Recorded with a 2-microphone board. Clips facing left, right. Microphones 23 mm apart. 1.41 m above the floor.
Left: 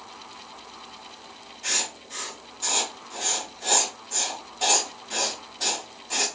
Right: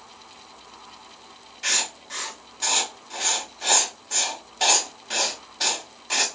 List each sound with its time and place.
1.6 s writing: 50° right (ahead or behind), 0.7 m